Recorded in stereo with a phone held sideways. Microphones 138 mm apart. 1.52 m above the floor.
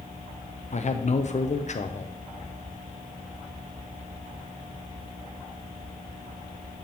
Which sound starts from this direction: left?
A man speaking, at 0.7 s.